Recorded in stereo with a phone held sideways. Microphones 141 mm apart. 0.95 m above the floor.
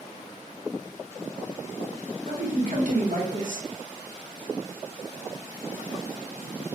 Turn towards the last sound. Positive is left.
turn(degrees=-65)  # may be behind; listen again after turning